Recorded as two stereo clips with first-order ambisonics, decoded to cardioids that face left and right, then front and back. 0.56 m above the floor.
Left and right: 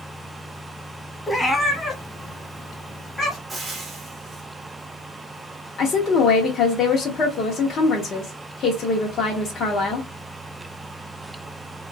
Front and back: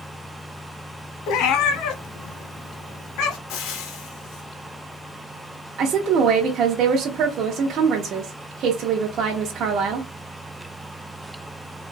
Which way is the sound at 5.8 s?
140° left.